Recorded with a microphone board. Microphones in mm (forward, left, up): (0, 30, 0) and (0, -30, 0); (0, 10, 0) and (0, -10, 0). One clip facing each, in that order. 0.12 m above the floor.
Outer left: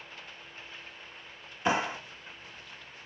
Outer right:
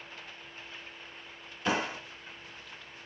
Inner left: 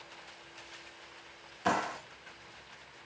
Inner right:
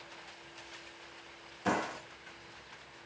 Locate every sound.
1.6 s a clap: 20° left (ahead or behind), 0.9 m